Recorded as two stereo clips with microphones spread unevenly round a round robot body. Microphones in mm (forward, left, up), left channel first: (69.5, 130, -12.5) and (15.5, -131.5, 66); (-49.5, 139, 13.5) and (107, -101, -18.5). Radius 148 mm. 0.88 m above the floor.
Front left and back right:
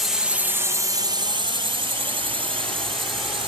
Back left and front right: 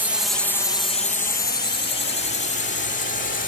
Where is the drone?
15° left; by 3.5 s straight behind.